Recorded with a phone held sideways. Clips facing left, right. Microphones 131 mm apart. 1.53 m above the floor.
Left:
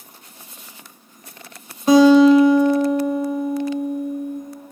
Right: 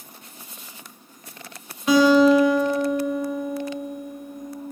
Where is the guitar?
35° left (ahead or behind), 2.5 m.